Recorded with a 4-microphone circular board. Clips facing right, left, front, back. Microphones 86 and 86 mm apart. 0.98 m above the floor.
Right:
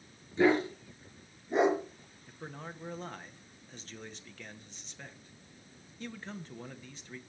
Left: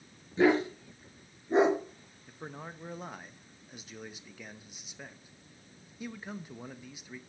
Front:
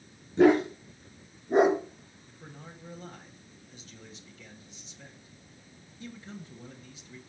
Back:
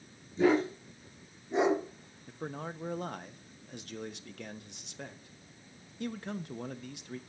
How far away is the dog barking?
About 4 m.